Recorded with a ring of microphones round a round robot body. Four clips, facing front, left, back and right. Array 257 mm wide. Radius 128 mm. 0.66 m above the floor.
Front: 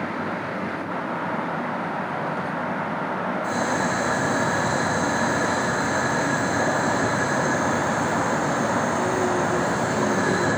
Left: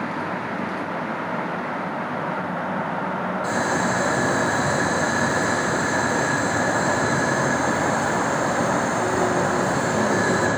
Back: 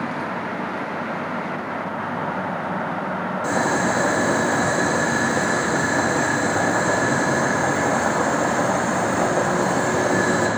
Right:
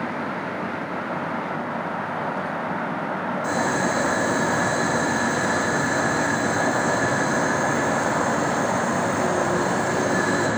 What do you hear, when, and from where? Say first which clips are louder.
3.4 s boiling: even, back 5 dB; 160° left, 4.5 m